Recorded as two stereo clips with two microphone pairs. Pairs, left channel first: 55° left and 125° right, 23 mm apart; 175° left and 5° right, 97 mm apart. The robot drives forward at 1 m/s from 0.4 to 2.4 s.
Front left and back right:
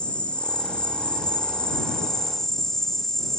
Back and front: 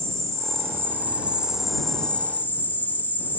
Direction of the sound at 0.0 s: 45° left.